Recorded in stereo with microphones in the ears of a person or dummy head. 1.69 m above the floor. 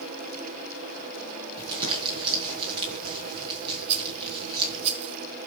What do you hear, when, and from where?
1.6 s crumpling: 30° right (ahead or behind), 5.5 m
3.9 s a rattle: 35° right (ahead or behind), 1.6 m